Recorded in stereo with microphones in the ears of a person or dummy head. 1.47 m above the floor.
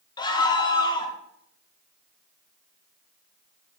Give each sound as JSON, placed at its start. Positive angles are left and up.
{"t": 0.2, "sound": "a scream", "side_deg": 25, "distance_m": 1.6}